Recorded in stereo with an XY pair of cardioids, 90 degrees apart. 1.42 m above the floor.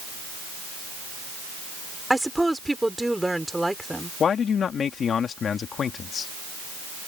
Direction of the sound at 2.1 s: 5° right.